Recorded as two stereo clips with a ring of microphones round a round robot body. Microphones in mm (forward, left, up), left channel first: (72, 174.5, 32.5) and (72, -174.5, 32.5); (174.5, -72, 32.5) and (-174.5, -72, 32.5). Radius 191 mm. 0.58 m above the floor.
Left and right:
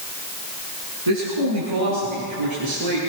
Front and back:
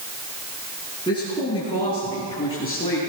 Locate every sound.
1.1 s a man speaking: 75° right, 7 m